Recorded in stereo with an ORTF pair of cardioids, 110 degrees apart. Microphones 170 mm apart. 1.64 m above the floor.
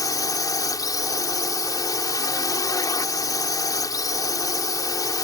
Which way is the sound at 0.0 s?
20° left.